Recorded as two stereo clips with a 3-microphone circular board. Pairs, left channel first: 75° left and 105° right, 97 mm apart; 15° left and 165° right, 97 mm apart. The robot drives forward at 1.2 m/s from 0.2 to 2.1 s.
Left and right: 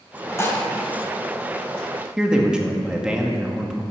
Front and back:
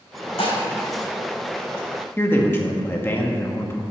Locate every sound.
0.4 s dishes clattering: 10° left, 2.5 m
2.2 s a man speaking: 30° right, 1.2 m